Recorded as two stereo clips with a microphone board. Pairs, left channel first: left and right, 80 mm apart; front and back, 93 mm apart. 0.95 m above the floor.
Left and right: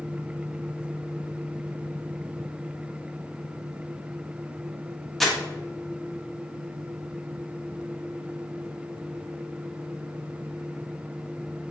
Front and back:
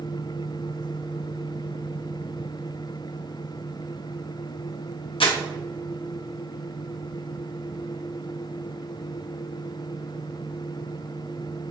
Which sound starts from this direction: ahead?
Crumpling, at 5.2 s.